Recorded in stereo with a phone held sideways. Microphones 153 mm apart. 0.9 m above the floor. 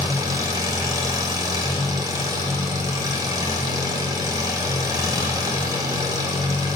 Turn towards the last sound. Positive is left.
turn(degrees=-25)  # may be behind; listen again after turning